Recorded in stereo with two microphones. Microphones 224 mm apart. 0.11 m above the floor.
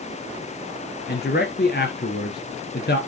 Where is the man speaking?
45° left (ahead or behind), 1.6 m.